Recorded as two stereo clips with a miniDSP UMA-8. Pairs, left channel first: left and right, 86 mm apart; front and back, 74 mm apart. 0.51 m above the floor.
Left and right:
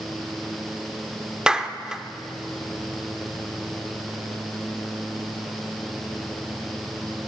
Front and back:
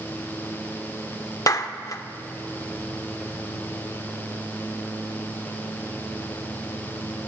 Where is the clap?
10° right, 0.7 m.